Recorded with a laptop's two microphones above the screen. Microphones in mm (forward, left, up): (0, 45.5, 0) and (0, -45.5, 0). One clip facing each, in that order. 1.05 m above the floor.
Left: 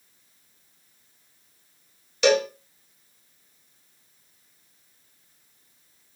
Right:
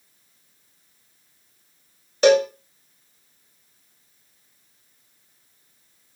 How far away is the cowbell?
About 1.1 m.